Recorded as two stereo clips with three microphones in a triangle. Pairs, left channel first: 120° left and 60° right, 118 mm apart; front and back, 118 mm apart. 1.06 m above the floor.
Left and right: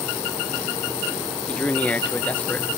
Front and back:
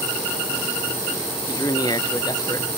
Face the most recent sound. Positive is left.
turn(degrees=45)